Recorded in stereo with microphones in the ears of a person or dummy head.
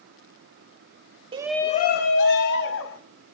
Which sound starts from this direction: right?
A shout, at 1.3 s.